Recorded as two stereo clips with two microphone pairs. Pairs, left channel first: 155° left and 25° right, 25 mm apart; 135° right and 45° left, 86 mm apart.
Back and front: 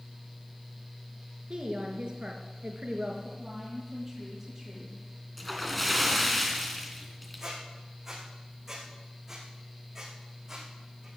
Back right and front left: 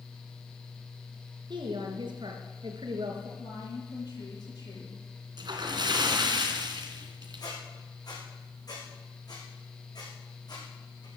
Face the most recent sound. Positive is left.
turn(degrees=-100)